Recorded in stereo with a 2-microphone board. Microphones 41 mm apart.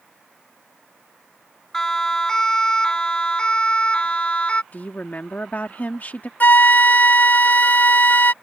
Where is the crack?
No crack in this recording.